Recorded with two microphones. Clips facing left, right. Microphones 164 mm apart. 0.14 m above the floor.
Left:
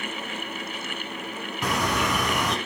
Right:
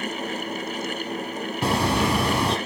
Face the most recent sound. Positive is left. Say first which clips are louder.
# right 4 dB
turn(degrees=-30)  # may be behind; listen again after turning